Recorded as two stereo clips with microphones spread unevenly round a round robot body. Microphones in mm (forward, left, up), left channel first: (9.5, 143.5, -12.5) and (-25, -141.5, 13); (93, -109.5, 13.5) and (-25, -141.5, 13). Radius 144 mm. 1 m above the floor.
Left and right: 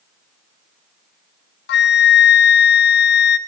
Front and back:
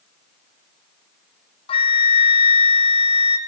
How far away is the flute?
About 0.5 m.